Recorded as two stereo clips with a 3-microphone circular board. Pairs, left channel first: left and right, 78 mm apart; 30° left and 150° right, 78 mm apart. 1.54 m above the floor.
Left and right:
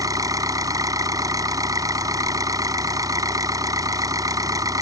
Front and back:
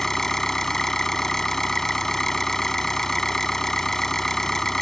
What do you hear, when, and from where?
0.0 s an engine running: 55° right